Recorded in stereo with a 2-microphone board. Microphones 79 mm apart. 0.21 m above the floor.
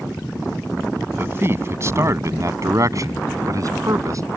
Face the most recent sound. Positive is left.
turn(degrees=-45)  # may be behind; listen again after turning